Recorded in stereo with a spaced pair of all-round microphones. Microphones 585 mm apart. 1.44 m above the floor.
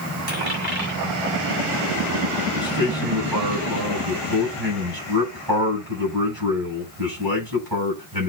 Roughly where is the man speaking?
Right.